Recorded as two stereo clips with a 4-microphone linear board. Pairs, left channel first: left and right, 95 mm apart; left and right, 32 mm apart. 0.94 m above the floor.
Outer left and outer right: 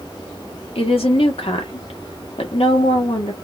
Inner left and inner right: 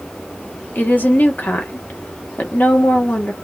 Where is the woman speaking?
80° left, 1.3 m.